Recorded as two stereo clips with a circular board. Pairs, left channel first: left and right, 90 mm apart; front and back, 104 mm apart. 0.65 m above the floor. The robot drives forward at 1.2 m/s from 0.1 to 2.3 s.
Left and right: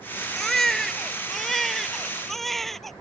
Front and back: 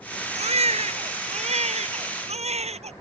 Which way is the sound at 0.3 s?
175° left.